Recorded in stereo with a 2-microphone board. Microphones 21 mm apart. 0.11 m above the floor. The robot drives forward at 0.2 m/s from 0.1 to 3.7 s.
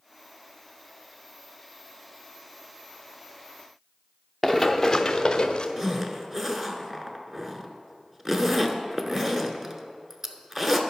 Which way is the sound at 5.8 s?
15° right (ahead or behind).